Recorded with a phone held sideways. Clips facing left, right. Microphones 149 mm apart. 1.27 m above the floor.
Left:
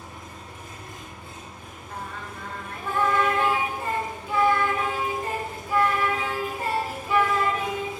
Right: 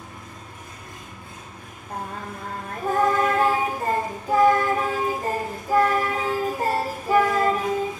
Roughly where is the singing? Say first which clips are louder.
Right 5 dB; right.